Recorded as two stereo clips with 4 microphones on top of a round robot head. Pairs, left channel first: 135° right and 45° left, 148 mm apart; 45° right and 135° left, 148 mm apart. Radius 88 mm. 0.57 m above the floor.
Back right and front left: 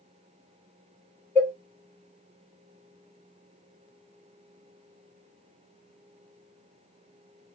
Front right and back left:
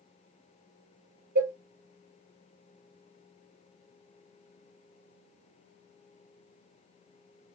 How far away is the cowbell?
About 1.9 m.